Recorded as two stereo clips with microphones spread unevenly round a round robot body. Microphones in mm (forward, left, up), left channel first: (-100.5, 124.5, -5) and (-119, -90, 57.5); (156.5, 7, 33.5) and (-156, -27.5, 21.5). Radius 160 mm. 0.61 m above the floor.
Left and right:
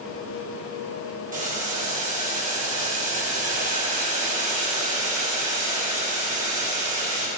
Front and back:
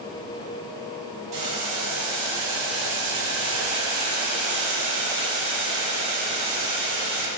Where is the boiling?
155° right, 2.5 m.